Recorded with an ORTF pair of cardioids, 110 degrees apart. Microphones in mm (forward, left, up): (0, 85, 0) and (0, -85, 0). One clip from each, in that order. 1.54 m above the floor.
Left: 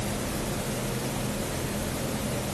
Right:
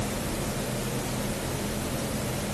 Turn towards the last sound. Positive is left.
No sound to turn to.